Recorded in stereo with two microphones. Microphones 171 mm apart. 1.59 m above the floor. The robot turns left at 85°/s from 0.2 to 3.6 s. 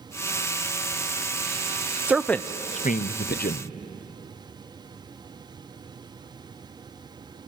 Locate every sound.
2.1 s a man speaking: 10° right (ahead or behind), 0.5 m; by 3.7 s 55° left (ahead or behind), 0.5 m